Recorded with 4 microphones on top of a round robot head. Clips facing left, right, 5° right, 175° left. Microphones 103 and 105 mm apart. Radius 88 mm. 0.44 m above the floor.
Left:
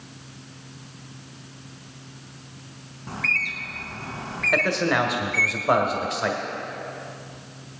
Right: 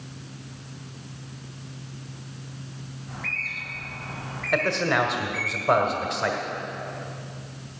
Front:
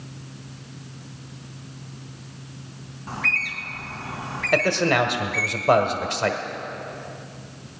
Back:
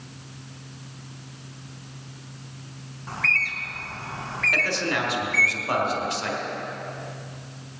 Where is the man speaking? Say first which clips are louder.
Left 1 dB, front 8 dB; straight ahead, 1.5 m.